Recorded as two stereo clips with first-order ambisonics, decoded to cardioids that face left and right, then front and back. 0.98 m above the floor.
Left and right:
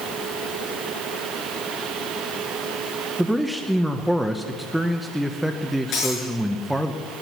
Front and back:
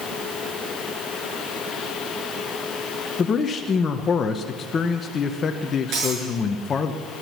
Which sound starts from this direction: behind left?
Breaking glass, at 5.9 s.